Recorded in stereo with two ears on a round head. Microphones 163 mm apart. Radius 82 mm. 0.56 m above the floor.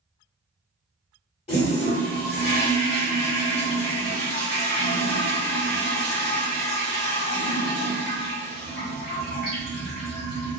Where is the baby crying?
I don't hear a baby crying.